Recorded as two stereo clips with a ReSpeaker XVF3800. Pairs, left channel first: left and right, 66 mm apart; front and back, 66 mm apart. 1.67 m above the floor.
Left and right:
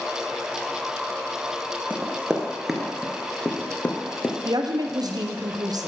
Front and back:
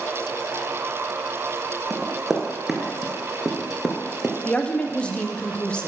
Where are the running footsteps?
100° right, 1.7 m; by 4.3 s 105° left, 1.8 m.